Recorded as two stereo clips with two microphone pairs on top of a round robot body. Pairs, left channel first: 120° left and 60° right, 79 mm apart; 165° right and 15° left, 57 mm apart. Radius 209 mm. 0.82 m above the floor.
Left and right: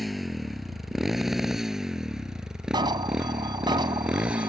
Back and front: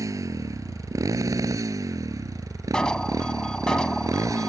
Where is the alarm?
85° right.